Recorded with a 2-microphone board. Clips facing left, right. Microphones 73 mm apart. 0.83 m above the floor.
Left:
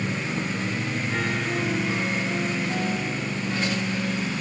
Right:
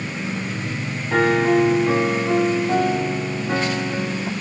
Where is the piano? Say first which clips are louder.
Right 14 dB; 55° right (ahead or behind), 1.1 m.